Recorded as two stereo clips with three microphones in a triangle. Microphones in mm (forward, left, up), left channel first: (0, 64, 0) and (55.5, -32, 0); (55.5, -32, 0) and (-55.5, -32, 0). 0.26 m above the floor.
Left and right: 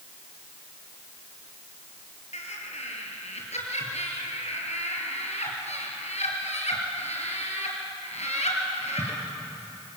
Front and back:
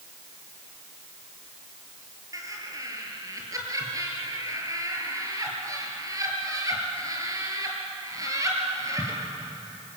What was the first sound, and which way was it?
Laughter, 120° left.